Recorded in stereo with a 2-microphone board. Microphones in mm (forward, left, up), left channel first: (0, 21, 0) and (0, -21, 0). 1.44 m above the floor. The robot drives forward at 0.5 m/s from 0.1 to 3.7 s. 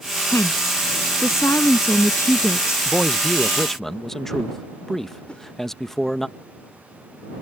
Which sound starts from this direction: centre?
A man speaking, at 2.9 s.